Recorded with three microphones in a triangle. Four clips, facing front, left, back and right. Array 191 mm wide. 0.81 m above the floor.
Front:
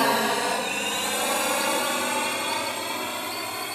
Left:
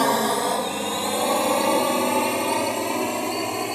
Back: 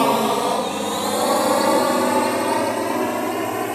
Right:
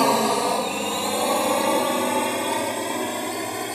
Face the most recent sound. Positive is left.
turn(degrees=170)